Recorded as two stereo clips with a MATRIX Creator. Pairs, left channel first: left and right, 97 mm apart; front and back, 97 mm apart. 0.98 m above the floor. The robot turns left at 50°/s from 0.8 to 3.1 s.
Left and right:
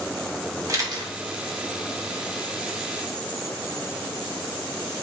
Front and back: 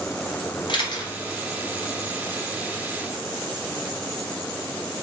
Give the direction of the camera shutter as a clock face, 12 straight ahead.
1 o'clock.